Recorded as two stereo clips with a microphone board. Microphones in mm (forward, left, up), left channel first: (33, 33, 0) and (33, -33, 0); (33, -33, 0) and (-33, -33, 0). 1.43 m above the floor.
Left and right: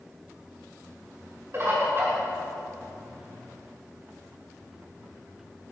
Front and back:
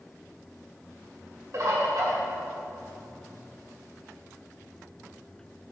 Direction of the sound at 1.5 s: 140° right.